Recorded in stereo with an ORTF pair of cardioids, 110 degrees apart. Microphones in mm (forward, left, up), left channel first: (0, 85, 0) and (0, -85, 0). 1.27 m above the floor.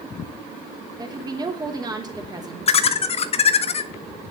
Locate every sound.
1.0 s a woman speaking: 25° right, 3.5 m
2.7 s laughter: 35° left, 1.9 m